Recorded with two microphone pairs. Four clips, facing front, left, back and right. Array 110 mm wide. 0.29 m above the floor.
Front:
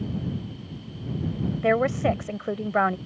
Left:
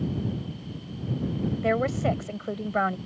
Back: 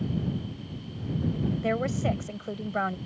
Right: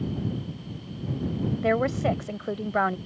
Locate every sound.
1.6 s a woman speaking: 5° right